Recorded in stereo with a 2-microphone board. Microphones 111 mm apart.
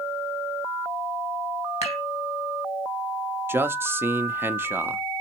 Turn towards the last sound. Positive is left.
turn(degrees=-20)  # may be behind; listen again after turning